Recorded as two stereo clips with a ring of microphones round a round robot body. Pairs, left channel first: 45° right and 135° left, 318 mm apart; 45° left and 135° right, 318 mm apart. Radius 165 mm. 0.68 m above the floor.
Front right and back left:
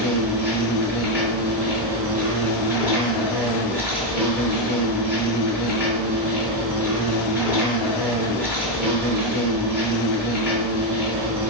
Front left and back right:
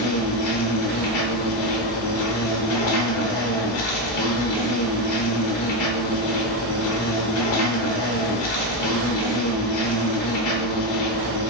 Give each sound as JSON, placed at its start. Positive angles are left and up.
{"t": 0.0, "sound": "an insect", "azimuth_deg": 50, "distance_m": 0.9}